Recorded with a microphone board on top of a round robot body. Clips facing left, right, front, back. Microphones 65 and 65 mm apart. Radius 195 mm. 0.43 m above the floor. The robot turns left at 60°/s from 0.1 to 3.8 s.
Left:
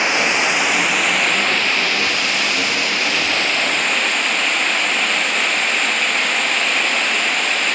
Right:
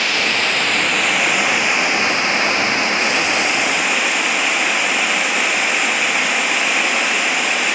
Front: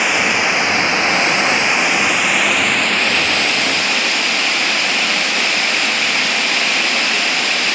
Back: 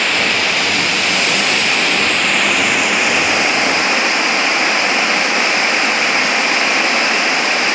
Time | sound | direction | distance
0.0 | running water | 55° left | 0.9 m